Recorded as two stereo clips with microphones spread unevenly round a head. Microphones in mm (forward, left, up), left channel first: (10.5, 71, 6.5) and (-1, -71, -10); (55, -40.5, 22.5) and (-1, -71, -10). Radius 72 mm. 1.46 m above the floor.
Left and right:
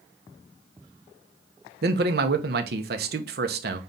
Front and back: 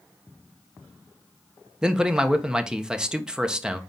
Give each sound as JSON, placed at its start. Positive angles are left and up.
{"t": 1.8, "sound": "a man speaking", "azimuth_deg": -75, "distance_m": 1.1}